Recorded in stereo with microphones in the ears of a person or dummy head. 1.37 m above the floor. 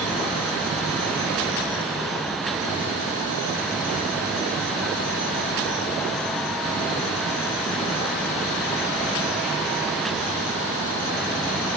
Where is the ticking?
I don't hear ticking.